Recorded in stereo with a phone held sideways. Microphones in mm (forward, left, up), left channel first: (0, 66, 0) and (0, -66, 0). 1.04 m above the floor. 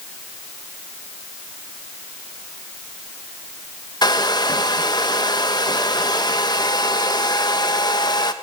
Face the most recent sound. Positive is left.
turn(degrees=35)  # may be behind; listen again after turning